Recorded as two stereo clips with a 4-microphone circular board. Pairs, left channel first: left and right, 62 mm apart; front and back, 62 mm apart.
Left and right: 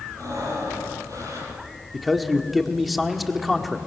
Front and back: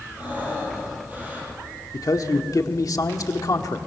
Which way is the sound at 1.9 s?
Straight ahead.